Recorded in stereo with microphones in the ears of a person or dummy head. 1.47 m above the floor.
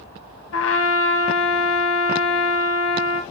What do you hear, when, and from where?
0.5 s a trumpet: 70° left (ahead or behind), 1.2 m